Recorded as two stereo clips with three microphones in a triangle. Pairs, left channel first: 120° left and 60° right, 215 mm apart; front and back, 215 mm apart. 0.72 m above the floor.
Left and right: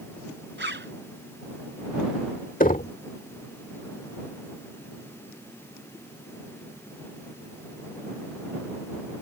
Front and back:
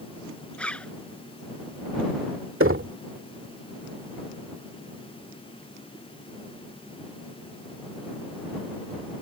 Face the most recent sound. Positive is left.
turn(degrees=170)